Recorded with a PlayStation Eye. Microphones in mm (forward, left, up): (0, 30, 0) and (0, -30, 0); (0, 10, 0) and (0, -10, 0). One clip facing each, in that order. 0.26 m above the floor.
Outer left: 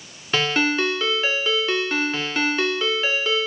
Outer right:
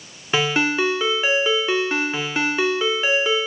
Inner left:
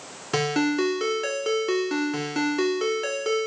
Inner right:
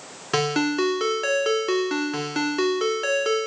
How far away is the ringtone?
About 1.4 m.